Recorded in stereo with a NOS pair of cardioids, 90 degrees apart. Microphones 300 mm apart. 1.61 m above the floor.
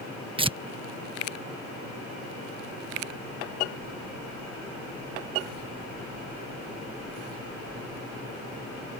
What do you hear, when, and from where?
0.4 s tearing paper: 15° right